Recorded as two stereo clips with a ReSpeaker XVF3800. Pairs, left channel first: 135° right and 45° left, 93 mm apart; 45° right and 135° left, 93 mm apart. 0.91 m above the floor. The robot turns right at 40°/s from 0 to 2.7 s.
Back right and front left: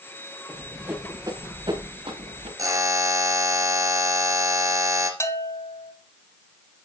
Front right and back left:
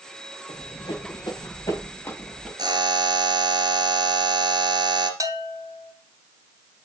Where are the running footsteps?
35° right, 5 m; by 2.5 s 40° left, 6 m.